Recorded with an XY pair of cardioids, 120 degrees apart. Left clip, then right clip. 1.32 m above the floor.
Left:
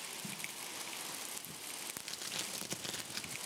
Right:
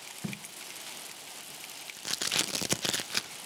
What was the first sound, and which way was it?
Tape being pulled, 65° right.